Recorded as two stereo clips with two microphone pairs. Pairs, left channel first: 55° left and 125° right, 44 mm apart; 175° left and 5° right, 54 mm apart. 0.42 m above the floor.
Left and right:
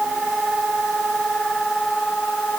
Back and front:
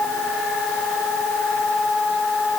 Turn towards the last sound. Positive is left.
No sound to turn to.